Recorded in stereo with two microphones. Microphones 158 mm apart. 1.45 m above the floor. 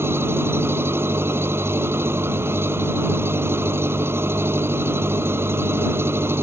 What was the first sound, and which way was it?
An engine running, 15° right (ahead or behind).